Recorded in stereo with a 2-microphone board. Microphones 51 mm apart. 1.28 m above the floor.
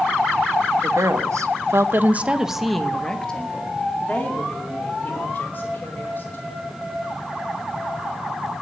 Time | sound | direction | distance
0.8 | a woman speaking | 80° right | 1.5 m